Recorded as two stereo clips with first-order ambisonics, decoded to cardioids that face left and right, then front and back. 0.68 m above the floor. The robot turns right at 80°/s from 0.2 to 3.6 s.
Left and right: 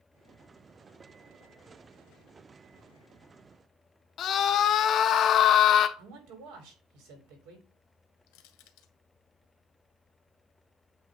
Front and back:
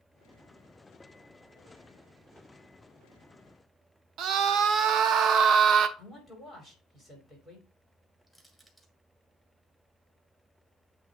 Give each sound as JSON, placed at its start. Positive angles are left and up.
{"t": 4.2, "sound": "a scream", "azimuth_deg": 140, "distance_m": 0.8}
{"t": 6.0, "sound": "a man speaking", "azimuth_deg": -95, "distance_m": 2.5}
{"t": 8.3, "sound": "crushing", "azimuth_deg": 100, "distance_m": 1.5}